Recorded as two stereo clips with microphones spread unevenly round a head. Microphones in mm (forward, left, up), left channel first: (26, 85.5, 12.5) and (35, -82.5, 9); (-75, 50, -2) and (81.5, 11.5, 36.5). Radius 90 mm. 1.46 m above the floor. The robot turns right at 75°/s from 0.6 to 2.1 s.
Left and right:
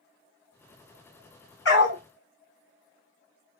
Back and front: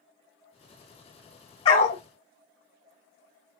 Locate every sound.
1.6 s a dog barking: 105° left, 2 m; by 2.0 s 130° left, 2 m